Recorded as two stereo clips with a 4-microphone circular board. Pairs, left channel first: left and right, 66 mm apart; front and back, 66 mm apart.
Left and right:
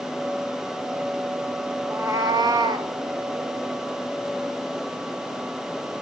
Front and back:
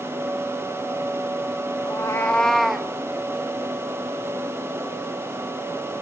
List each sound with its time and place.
1.9 s a cat meowing: 20° right, 0.8 m; by 2.9 s 100° right, 1.3 m